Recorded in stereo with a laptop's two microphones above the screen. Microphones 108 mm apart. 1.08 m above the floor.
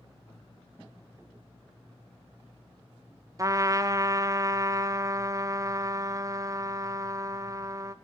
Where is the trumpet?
30° right (ahead or behind), 0.5 m.